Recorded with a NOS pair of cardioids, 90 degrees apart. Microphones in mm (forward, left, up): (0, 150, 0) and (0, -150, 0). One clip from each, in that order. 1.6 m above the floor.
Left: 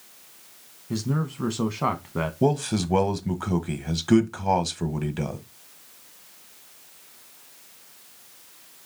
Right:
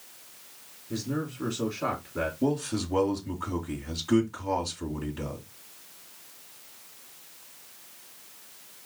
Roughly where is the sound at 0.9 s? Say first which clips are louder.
Left 2 dB; ahead left.